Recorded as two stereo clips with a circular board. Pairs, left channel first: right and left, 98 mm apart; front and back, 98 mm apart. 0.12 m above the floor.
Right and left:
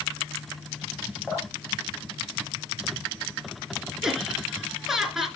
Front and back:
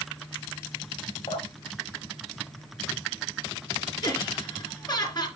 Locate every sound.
1.3 s dripping: straight ahead, 6.5 m
4.0 s laughter: 5° left, 2 m